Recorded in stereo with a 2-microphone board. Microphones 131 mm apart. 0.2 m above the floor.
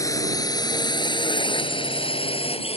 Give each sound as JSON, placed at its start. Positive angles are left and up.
{"t": 0.0, "sound": "a drone", "side_deg": 25}